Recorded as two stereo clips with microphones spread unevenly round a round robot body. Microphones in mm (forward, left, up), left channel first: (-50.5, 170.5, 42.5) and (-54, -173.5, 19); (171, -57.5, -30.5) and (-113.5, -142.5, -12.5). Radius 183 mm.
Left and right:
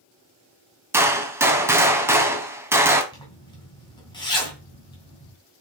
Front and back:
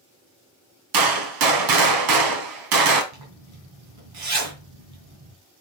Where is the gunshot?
170° right, 1.8 m.